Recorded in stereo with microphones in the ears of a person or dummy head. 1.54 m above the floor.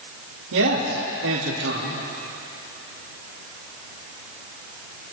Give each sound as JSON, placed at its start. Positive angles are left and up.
{"t": 0.5, "sound": "a man speaking", "side_deg": -85, "distance_m": 3.0}